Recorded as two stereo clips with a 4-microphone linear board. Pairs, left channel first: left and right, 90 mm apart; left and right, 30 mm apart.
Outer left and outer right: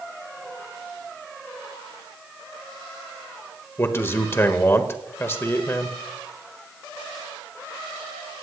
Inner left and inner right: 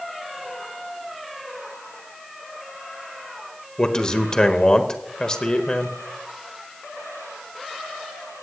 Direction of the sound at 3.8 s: 25° left (ahead or behind).